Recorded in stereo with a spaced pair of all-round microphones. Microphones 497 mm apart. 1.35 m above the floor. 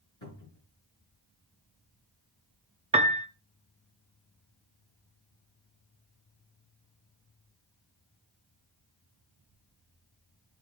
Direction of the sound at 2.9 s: 15° right (ahead or behind).